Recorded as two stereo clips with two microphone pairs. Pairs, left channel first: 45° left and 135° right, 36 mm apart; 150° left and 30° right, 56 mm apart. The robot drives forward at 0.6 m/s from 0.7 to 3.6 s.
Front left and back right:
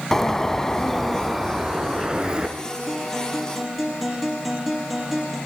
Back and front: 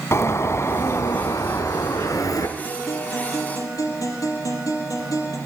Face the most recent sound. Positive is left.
turn(degrees=135)